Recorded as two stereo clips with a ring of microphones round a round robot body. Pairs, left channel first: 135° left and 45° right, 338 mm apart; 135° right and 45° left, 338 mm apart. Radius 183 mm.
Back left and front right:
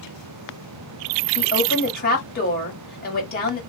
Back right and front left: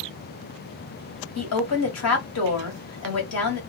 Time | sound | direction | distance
1.4 | a woman speaking | 165° right | 1.9 m